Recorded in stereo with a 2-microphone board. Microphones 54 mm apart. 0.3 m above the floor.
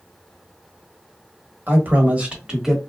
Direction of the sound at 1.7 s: 40° right (ahead or behind).